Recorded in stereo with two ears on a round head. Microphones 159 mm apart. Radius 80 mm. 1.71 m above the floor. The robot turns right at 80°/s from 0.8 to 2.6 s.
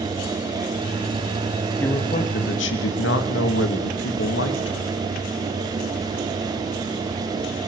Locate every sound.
1.8 s a man speaking: 10° left, 3 m; by 4.9 s 75° left, 3 m